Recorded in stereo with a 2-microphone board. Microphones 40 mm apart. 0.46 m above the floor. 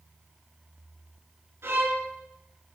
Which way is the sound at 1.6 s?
80° right.